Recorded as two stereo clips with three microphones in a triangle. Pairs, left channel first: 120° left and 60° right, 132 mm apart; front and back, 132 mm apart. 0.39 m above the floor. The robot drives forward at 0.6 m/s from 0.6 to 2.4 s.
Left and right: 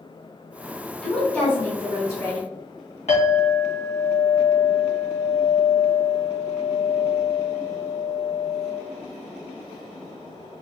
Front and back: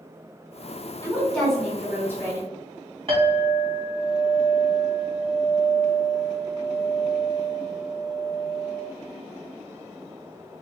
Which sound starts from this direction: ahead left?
A woman speaking, at 1.0 s.